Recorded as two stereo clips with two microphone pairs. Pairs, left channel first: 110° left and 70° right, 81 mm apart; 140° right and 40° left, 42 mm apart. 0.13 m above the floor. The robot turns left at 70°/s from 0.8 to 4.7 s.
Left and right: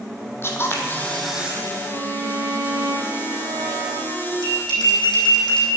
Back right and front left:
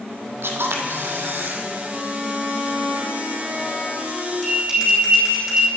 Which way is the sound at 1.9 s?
85° left.